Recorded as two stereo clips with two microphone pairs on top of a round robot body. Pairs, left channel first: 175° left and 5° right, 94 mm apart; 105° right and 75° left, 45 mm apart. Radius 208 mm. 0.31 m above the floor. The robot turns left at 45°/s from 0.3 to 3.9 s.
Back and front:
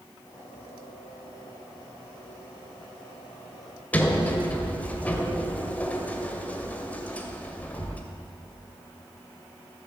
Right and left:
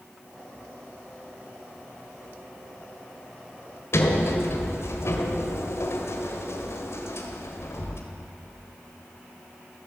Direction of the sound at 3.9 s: 110° right.